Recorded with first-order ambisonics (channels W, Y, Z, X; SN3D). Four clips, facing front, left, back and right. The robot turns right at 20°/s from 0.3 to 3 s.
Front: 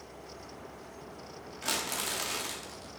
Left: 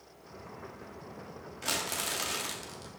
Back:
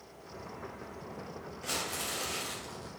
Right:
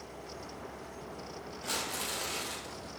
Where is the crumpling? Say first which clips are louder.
Left 3 dB, front 3 dB; 40° left, 2.5 m; by 3.0 s 70° left, 2.5 m.